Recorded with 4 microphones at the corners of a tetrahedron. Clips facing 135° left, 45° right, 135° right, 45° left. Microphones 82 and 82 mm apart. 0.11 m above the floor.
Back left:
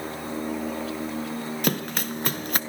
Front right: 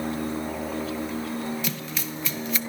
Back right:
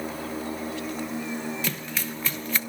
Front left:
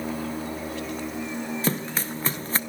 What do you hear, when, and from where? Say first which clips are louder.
1.6 s running footsteps: back left 5 dB, front left 5 dB; 100° left, 0.7 m